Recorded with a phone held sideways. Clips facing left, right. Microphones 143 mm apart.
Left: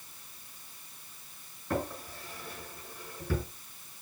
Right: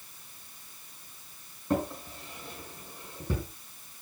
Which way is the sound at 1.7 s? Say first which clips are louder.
Right 4 dB; 25° right (ahead or behind).